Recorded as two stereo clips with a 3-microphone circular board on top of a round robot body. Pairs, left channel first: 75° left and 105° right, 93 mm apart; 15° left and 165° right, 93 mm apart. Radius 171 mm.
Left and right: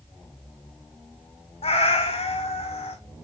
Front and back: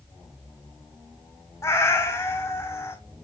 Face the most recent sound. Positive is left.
turn(degrees=75)